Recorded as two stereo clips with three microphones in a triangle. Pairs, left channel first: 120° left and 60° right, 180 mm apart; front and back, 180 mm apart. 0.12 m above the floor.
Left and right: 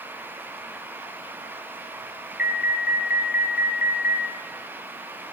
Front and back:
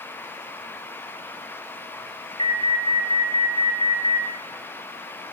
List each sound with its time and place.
2.4 s an alarm: 130° left, 4 m